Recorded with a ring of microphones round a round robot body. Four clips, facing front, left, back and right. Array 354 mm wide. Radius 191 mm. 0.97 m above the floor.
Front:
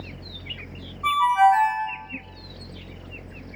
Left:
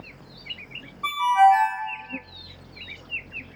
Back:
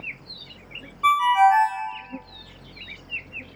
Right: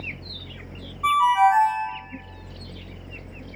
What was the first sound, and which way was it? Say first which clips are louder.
A ringtone: even, back 1 dB; straight behind.